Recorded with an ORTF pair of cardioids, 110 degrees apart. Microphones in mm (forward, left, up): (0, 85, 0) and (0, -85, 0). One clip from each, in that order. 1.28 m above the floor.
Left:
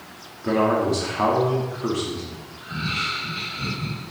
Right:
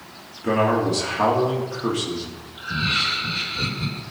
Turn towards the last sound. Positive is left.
turn(degrees=-45)